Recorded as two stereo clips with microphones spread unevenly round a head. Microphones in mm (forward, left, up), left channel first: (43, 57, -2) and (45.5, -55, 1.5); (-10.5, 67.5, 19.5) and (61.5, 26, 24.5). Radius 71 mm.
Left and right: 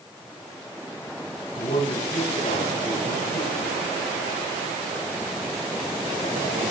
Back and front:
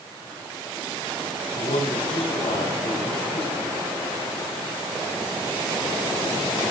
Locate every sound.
1.6 s a man speaking: 145° left, 8.5 m; by 4.0 s 150° left, 7.5 m